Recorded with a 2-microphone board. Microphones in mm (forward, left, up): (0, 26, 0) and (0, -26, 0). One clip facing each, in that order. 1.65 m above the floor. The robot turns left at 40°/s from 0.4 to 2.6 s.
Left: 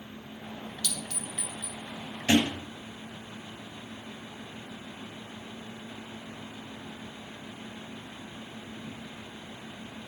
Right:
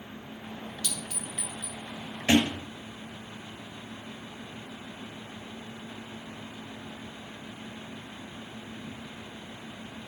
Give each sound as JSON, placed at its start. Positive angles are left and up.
{"t": 0.8, "sound": "a clink", "side_deg": -25, "distance_m": 1.1}
{"t": 2.3, "sound": "a thud", "side_deg": -25, "distance_m": 2.5}